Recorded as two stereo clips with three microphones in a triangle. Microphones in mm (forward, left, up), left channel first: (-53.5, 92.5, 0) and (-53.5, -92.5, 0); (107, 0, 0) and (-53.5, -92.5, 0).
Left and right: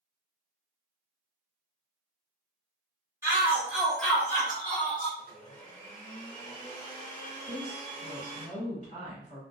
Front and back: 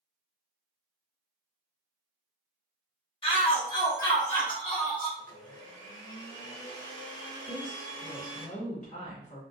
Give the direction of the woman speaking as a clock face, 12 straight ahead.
10 o'clock.